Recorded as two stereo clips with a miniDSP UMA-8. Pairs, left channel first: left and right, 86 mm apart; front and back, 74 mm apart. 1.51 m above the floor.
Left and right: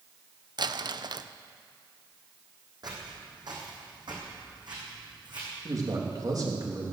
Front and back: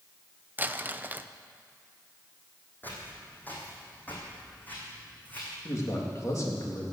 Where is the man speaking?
45° right, 3 m.